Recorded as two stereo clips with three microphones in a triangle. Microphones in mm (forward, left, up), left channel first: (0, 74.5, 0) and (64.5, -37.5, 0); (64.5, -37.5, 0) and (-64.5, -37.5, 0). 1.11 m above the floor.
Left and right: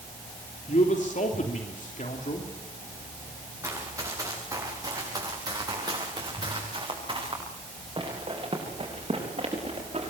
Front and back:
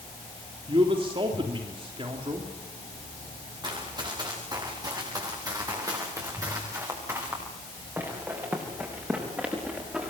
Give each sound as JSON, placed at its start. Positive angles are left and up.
{"t": 0.7, "sound": "a man speaking", "azimuth_deg": 135, "distance_m": 3.0}
{"t": 3.6, "sound": "running footsteps", "azimuth_deg": -125, "distance_m": 9.0}